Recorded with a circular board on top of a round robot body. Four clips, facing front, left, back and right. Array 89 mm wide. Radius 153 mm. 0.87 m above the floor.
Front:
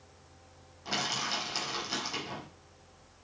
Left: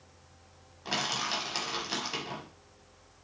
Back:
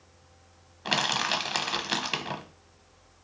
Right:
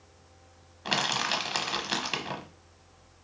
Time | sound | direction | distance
0.8 | crushing | 150° right | 1.0 m